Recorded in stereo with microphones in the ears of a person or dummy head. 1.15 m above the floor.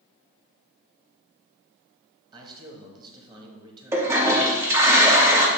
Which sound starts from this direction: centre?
A toilet flushing, at 3.9 s.